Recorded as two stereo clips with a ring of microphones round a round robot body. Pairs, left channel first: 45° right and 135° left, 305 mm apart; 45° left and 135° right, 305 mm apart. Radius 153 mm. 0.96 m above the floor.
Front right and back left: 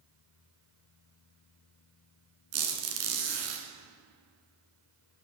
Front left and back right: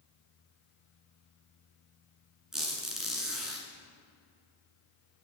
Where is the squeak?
135° left, 2 m.